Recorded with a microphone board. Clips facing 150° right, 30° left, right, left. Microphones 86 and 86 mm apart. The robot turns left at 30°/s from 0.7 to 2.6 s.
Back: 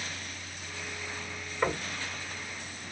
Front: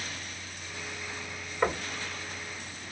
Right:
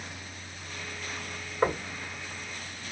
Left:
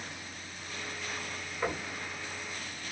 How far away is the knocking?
About 2 m.